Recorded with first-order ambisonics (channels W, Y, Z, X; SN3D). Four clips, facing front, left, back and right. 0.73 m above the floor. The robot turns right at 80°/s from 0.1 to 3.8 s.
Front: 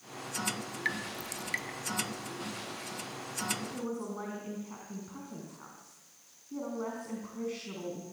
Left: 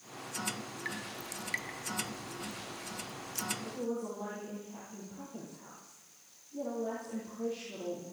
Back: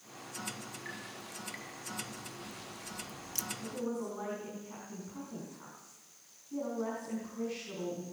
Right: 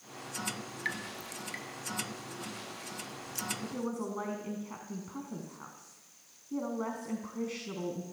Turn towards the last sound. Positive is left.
turn(degrees=-75)